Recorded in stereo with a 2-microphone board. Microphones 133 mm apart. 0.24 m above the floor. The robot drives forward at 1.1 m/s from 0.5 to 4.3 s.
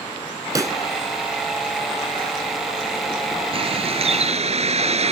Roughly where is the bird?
Right.